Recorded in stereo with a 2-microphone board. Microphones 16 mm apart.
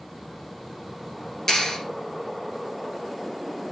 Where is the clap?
50° left (ahead or behind), 7.5 m.